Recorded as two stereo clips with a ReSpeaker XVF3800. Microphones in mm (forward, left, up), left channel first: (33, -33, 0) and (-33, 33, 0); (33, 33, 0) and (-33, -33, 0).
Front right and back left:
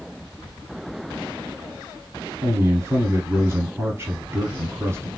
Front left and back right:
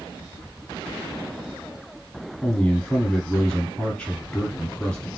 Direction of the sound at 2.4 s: 115° left.